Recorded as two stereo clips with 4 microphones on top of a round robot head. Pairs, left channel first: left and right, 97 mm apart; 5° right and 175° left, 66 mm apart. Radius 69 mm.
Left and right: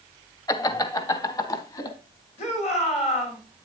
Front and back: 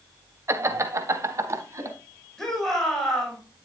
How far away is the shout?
About 6 m.